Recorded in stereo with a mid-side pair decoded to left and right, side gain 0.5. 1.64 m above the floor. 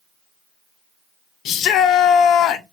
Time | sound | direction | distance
1.4 | a shout | 70° left | 0.9 m